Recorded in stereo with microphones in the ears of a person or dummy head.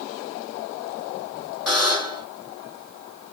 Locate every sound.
1.7 s a buzzer: centre (ahead or behind), 1.6 m